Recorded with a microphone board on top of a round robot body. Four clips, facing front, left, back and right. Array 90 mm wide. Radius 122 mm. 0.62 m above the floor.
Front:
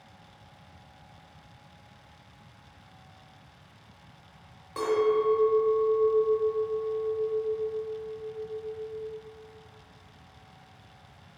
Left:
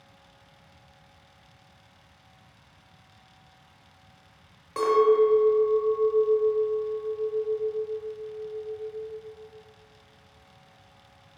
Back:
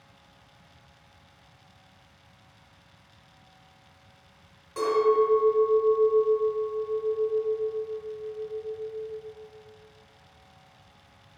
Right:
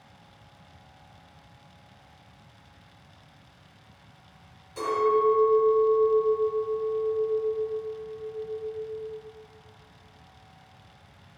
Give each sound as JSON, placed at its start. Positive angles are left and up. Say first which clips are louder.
{"t": 4.8, "sound": "a clink", "louder": "left 4 dB, back 3 dB", "azimuth_deg": 65, "distance_m": 0.7}